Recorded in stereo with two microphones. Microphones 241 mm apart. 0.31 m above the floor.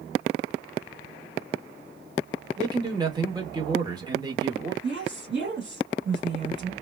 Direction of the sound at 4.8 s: 50° right (ahead or behind).